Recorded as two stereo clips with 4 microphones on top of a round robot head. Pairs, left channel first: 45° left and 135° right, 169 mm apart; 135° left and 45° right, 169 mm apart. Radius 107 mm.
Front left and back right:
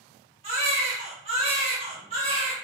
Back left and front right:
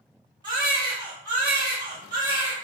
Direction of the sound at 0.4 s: 100° right.